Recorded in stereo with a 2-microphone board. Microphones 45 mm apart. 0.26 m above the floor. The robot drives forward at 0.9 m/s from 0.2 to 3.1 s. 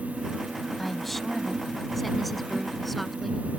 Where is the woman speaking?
5° left (ahead or behind); by 3.4 s centre (ahead or behind).